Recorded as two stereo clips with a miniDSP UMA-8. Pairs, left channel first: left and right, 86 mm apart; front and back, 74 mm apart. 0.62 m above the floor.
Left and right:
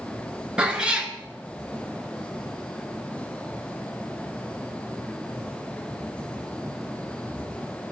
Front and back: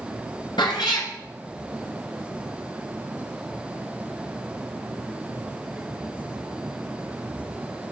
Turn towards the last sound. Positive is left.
turn(degrees=-10)